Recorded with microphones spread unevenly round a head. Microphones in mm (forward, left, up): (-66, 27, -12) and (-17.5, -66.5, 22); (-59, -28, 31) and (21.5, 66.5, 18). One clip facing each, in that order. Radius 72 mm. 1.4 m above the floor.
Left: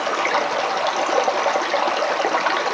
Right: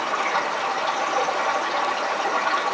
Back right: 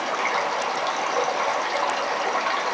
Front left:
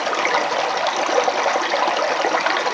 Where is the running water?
70° left, 0.7 m.